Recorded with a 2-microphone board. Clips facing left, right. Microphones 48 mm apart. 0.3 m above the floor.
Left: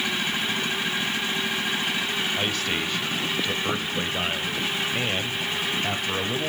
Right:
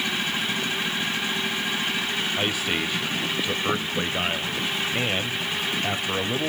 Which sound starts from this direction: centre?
A man speaking, at 2.4 s.